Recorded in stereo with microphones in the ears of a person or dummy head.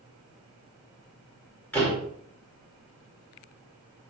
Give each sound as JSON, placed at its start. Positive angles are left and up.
{"t": 1.7, "sound": "a door slam", "side_deg": 10, "distance_m": 4.5}